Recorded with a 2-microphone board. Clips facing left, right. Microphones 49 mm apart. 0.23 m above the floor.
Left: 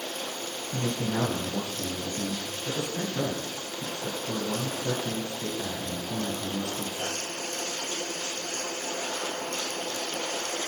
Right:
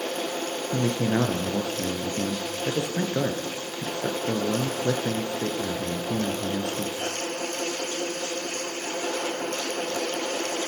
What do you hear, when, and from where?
0.7 s a man speaking: 75° right (ahead or behind), 3 m